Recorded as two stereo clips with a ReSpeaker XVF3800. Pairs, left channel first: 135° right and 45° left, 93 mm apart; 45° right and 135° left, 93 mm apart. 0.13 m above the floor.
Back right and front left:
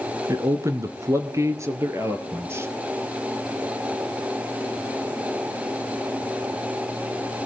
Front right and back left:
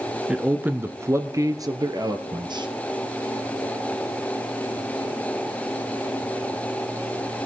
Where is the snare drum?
I don't hear a snare drum.